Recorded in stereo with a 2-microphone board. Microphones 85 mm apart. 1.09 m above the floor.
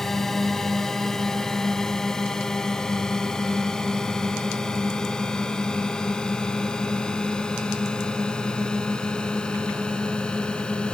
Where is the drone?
5° left (ahead or behind); by 10.9 s 15° left (ahead or behind).